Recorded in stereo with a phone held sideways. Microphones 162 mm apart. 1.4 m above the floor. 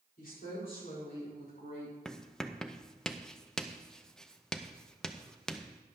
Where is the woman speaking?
60° left (ahead or behind), 4.5 m; by 1.9 s 70° left (ahead or behind), 6.5 m.